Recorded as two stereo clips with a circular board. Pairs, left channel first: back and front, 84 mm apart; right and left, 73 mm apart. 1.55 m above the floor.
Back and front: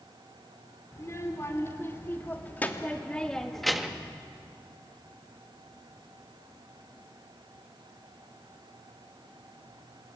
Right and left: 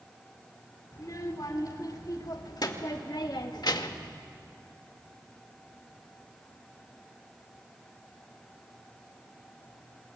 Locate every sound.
0.9 s a child speaking: 125° right, 3.5 m; by 4.1 s 75° right, 1.4 m